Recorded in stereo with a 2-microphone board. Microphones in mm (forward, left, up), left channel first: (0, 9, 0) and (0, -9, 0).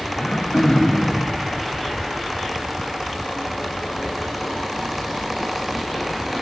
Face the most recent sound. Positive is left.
turn(degrees=50)  # may be behind; listen again after turning